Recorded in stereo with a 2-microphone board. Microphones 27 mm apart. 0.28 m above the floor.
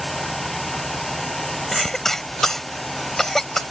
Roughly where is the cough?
Centre.